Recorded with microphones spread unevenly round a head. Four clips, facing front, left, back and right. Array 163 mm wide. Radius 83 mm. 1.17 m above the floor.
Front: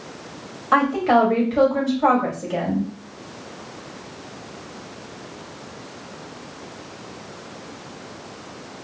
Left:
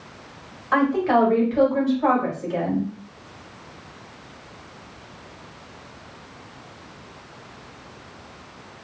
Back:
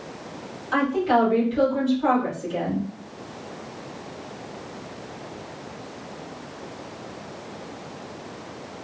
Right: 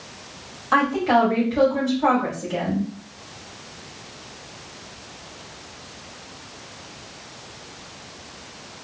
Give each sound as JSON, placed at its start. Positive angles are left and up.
{"t": 0.7, "sound": "a woman speaking", "azimuth_deg": -15, "distance_m": 2.0}